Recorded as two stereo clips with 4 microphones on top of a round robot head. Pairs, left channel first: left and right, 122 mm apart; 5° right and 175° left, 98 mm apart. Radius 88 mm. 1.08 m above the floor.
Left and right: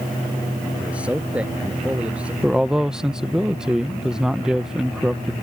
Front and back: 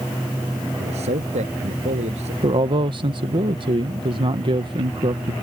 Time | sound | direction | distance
0.8 | a man speaking | 170° right | ?
2.4 | a man speaking | 175° right | ?